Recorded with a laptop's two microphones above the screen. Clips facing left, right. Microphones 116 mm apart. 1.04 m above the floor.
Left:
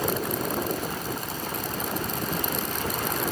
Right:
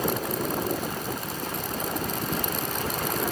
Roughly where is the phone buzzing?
No phone buzzing in this recording.